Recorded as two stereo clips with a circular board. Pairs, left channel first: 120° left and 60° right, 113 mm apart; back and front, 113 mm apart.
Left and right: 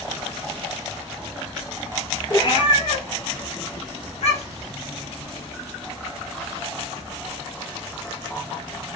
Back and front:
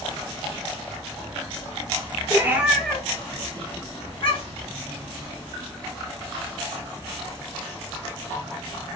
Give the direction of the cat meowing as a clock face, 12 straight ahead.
10 o'clock.